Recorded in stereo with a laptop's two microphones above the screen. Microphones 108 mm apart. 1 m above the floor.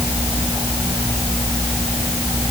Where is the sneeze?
I don't hear a sneeze.